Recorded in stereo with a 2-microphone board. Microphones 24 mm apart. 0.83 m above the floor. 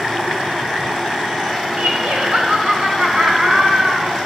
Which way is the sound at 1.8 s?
55° right (ahead or behind).